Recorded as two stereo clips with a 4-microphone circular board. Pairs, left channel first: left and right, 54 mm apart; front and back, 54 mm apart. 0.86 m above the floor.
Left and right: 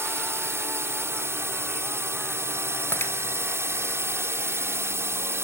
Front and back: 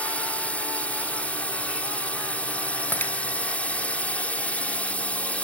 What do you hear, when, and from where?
0.0 s a drone: 65° right
2.9 s breaking glass: 50° left